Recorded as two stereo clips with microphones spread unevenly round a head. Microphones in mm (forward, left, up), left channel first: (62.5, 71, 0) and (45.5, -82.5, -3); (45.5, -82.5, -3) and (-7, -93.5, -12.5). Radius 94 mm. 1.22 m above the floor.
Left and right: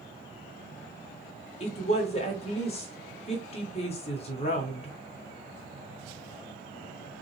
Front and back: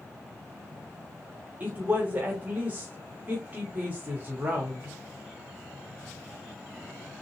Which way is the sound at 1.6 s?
135° left.